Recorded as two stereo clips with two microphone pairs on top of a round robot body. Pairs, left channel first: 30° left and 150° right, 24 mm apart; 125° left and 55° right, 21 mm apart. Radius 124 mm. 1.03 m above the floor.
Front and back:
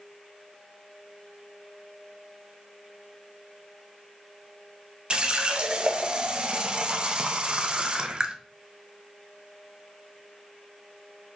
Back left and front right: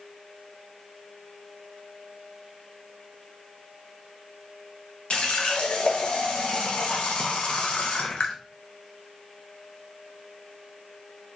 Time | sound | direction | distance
5.1 | a running tap | 160° left | 0.6 m